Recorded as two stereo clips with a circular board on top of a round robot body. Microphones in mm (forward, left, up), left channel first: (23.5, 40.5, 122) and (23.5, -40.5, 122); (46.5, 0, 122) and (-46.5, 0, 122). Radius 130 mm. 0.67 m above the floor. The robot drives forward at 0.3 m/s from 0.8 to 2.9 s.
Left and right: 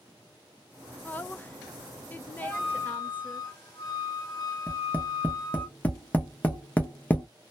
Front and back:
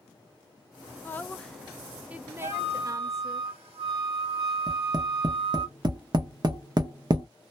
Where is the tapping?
155° left, 1.0 m.